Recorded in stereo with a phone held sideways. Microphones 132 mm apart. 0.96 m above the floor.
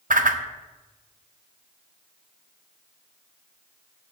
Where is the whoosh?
85° right, 0.6 m.